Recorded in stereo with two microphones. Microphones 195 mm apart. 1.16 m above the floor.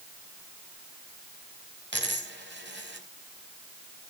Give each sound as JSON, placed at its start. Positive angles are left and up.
{"t": 1.9, "sound": "a dropped coin", "side_deg": -65, "distance_m": 4.0}